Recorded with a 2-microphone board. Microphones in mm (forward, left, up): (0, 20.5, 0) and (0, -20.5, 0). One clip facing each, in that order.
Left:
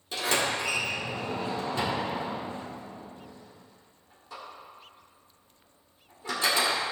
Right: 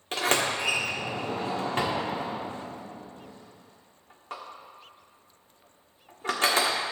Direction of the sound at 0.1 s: 60° right (ahead or behind).